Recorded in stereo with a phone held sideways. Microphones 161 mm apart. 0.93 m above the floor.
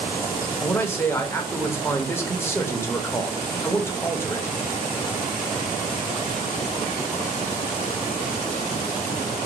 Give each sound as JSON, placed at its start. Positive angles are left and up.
{"t": 0.6, "sound": "a man speaking", "side_deg": 15, "distance_m": 0.6}